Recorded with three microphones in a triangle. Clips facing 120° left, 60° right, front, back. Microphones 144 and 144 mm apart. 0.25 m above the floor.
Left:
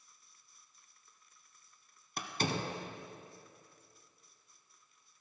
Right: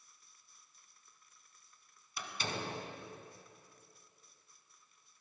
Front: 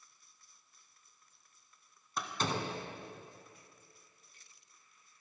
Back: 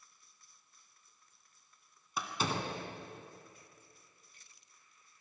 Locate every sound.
2.2 s a door slam: 95° left, 1.4 m